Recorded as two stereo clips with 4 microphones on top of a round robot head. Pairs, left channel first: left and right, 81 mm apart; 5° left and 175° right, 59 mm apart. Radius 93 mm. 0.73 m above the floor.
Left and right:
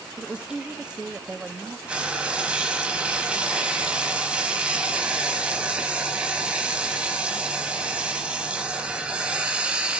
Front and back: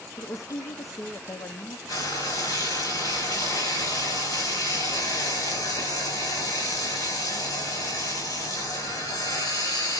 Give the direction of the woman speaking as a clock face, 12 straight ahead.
12 o'clock.